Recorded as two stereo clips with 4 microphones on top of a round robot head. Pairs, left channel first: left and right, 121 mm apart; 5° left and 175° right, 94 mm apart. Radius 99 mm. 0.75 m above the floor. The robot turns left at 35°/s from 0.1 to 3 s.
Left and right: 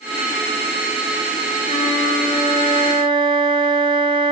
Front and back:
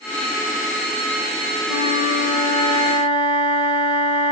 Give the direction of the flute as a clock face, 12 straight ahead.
1 o'clock.